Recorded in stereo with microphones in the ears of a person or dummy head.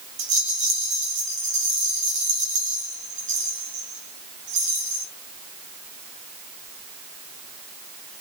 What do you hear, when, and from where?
0.2 s a rattle: 35° right (ahead or behind), 1.7 m